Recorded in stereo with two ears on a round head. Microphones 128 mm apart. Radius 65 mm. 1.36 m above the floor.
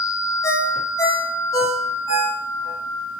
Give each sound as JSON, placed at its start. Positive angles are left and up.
{"t": 0.4, "sound": "a ringtone", "side_deg": 25, "distance_m": 4.0}